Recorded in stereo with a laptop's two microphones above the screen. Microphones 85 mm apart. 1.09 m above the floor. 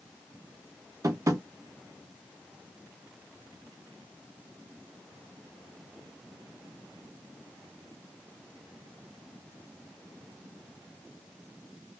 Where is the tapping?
40° right (ahead or behind), 0.6 m.